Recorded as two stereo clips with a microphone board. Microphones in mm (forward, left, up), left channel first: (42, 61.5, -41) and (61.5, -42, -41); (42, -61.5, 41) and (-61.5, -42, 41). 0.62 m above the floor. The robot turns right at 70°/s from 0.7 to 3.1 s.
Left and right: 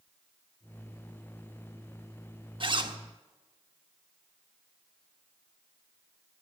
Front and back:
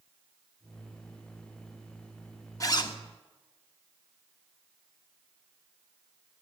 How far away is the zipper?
About 1.1 m.